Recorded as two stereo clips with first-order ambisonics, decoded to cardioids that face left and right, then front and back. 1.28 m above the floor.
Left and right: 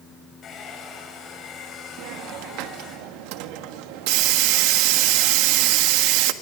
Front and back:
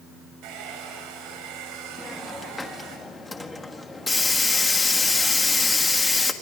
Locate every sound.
0.4 s a hair dryer: 155° left, 7.5 m
2.0 s a hiss: 80° right, 1.5 m